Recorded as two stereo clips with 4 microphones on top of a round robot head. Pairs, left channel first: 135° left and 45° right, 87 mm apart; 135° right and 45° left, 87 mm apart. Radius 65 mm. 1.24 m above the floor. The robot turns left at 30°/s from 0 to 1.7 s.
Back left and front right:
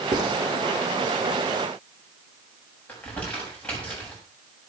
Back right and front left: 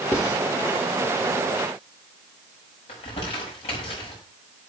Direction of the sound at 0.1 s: 80° right.